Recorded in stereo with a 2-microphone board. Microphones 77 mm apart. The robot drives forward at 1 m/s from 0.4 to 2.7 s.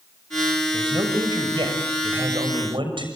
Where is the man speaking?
70° right (ahead or behind), 6.5 m; by 3.0 s 85° right, 6 m.